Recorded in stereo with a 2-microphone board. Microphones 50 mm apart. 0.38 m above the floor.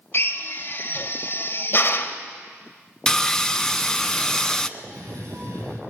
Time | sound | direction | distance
0.1 | a drill | 45° left (ahead or behind) | 1.9 m
3.1 | sawing | 15° left (ahead or behind) | 0.8 m
4.8 | a cough | 65° right (ahead or behind) | 8.5 m